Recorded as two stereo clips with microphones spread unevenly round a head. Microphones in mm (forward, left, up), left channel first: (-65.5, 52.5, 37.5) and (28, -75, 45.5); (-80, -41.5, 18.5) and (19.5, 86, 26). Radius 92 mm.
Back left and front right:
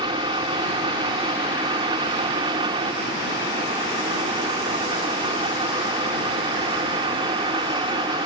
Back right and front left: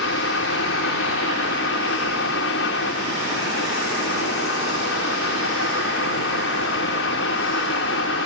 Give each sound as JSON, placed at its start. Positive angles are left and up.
{"t": 0.0, "sound": "a fan", "azimuth_deg": -115}